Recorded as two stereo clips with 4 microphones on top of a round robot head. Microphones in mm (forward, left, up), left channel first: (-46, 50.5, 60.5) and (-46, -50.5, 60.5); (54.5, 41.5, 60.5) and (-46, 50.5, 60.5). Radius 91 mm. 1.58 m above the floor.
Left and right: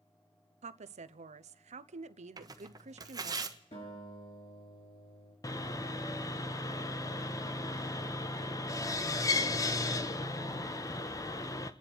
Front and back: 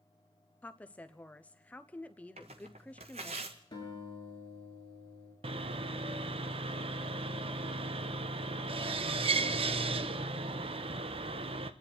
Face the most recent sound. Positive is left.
turn(degrees=145)